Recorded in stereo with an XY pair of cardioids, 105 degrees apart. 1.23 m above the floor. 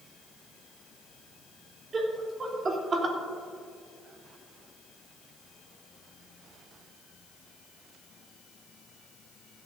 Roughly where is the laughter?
Ahead right.